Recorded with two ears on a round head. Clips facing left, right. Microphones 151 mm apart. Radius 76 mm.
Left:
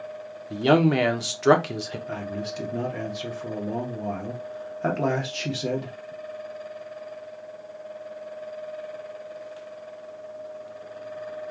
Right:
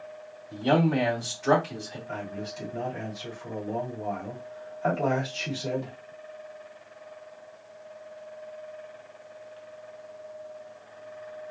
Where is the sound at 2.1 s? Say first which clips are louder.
Left 2 dB; 70° left (ahead or behind), 1.3 m.